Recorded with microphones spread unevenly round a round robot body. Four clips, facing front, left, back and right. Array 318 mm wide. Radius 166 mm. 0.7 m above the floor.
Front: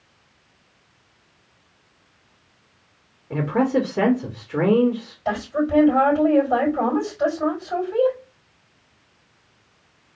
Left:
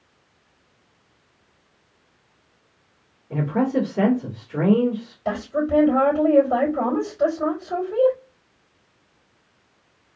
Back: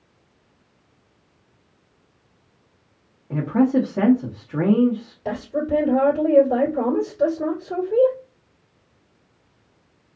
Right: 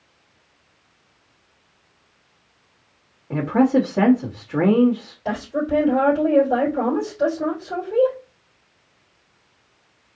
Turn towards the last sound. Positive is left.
turn(degrees=-165)